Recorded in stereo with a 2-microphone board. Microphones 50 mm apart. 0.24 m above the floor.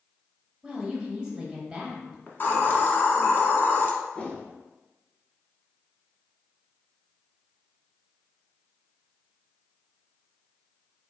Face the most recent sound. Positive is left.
turn(degrees=25)  # may be behind; listen again after turning